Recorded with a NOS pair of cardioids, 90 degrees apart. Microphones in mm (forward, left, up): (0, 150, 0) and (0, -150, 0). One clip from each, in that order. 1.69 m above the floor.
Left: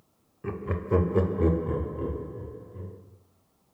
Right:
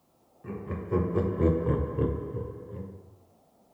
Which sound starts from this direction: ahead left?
Laughter, at 0.4 s.